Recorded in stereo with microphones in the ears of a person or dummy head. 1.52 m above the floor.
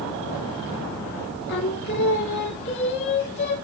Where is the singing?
55° left (ahead or behind), 1.6 m.